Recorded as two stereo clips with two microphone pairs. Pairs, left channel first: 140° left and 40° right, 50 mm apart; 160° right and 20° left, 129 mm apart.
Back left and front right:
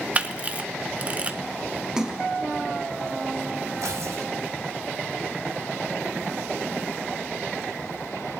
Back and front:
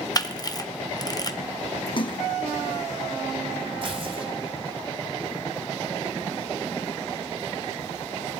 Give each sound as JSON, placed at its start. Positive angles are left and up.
{"t": 0.1, "sound": "a camera shutter", "azimuth_deg": -100, "distance_m": 0.8}
{"t": 2.0, "sound": "a splash", "azimuth_deg": -120, "distance_m": 0.7}
{"t": 3.8, "sound": "tearing paper", "azimuth_deg": -30, "distance_m": 2.0}